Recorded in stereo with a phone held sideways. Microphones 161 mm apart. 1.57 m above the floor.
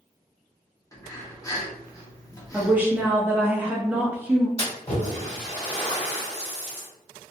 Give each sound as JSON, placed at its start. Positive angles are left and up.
{"t": 0.9, "sound": "breathing", "side_deg": 20, "distance_m": 0.6}
{"t": 2.5, "sound": "a woman speaking", "side_deg": -10, "distance_m": 0.5}
{"t": 4.6, "sound": "a splash", "side_deg": 40, "distance_m": 1.7}